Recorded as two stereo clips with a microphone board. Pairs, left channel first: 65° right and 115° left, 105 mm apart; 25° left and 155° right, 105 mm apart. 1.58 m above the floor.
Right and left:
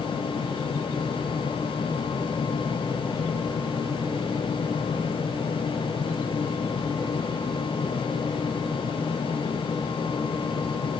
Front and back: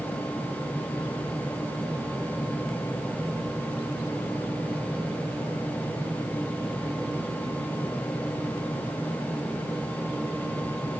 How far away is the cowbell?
No cowbell in this recording.